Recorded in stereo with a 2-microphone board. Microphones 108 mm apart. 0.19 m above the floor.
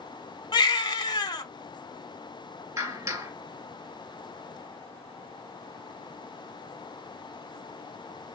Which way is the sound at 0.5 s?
45° left (ahead or behind).